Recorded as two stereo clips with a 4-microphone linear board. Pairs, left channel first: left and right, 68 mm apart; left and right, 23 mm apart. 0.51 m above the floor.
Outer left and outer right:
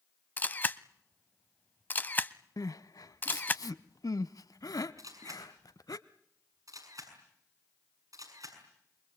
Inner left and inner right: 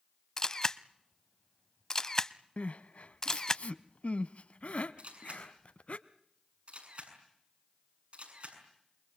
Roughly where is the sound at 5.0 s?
Right.